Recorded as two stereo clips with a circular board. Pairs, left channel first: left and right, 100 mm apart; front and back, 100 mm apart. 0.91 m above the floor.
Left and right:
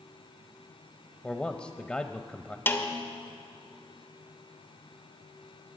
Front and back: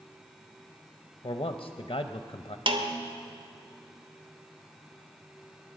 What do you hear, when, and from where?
1.2 s a man speaking: 10° left, 0.5 m
2.7 s a snare drum: 155° left, 0.9 m